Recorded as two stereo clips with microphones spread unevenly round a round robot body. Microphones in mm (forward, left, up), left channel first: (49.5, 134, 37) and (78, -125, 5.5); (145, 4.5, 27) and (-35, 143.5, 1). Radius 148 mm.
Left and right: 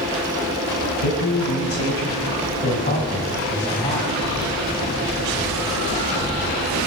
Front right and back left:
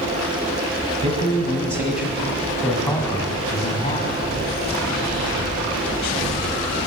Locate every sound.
1.0 s a man speaking: 80° left, 2 m; by 4.2 s 20° left, 3 m